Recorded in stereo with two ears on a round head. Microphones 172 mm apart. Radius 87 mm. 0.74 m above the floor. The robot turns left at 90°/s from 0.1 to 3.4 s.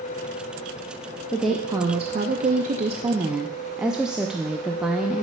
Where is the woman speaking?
15° left, 0.5 m; by 5.2 s 175° right, 0.5 m.